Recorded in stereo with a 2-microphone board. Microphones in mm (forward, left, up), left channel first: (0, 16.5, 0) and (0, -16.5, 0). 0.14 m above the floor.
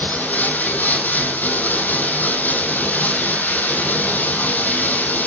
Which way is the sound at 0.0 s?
65° left (ahead or behind).